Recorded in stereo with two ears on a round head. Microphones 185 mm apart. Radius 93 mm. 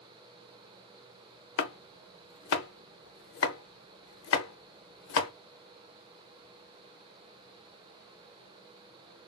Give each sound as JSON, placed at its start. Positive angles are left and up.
{"t": 1.6, "sound": "chopping", "side_deg": 65, "distance_m": 0.6}